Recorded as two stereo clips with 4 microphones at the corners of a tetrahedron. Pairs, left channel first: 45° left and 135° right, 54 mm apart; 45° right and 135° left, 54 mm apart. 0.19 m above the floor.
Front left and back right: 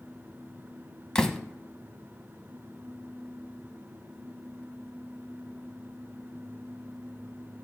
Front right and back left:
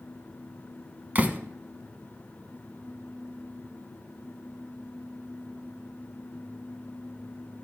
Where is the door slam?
115° left, 0.8 m.